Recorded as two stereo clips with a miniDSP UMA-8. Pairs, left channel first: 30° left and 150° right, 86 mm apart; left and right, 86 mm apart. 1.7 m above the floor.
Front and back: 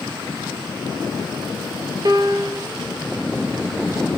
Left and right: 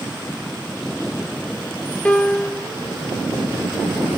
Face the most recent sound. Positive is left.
turn(degrees=165)